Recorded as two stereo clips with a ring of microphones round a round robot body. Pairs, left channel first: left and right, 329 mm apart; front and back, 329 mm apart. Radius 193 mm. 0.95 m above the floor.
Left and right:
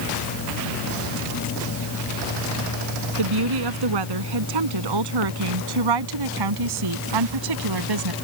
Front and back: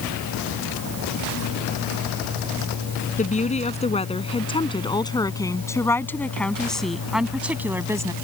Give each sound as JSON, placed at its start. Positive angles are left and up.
{"t": 3.2, "sound": "a woman speaking", "azimuth_deg": -70}